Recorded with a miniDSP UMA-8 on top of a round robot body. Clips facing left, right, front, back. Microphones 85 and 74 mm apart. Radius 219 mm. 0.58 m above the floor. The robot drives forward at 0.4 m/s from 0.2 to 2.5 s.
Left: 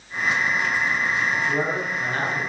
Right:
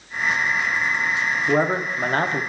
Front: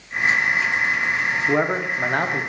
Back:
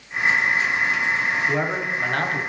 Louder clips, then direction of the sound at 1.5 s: Right 4 dB, front 3 dB; 60° right.